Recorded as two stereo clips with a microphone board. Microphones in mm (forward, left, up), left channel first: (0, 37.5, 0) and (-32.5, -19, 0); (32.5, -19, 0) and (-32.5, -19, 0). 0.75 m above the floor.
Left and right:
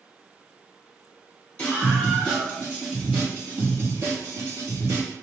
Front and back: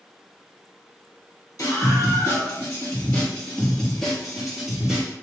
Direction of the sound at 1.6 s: 15° right.